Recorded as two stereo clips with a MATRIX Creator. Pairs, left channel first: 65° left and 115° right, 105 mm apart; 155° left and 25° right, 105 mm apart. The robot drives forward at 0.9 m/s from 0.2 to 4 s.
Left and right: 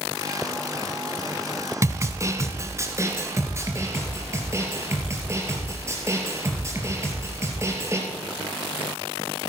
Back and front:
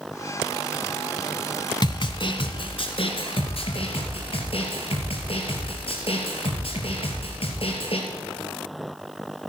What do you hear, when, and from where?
1.8 s a snare drum: 170° right, 1.0 m; by 8.0 s 175° right, 3 m